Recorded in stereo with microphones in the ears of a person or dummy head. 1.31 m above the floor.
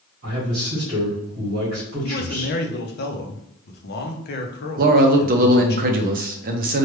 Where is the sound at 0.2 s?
45° right (ahead or behind), 1.5 m.